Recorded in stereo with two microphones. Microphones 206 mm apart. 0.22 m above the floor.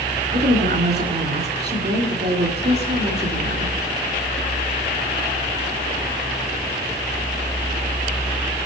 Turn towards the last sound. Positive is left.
turn(degrees=-60)  # may be behind; listen again after turning